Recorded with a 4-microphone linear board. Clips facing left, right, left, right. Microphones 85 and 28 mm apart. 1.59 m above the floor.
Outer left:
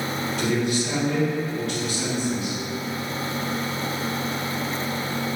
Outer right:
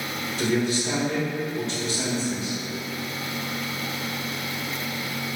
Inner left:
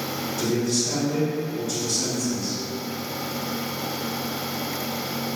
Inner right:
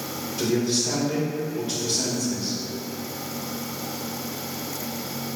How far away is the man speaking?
About 1.4 m.